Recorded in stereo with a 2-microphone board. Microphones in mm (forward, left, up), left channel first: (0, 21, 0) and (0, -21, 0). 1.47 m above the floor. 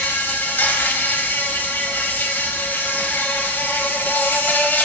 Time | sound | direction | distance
0.0 | an insect | 55° left (ahead or behind) | 0.9 m